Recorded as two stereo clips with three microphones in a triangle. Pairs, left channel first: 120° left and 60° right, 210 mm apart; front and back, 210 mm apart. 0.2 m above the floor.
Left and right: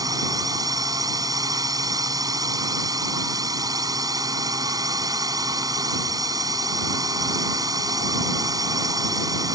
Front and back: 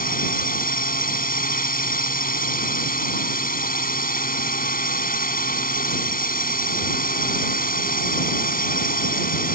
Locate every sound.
0.0 s a drone: 5° left